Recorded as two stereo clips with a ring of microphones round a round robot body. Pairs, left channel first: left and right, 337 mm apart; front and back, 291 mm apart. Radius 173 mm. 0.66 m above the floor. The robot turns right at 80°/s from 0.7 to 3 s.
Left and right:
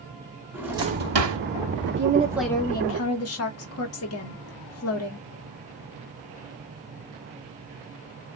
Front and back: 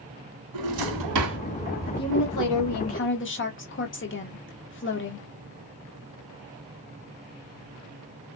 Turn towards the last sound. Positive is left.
turn(degrees=45)